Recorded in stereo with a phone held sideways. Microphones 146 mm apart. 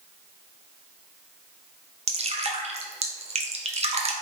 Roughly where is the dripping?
Right.